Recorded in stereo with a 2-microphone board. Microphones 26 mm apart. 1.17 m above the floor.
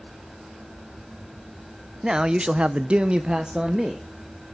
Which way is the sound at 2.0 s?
25° right (ahead or behind).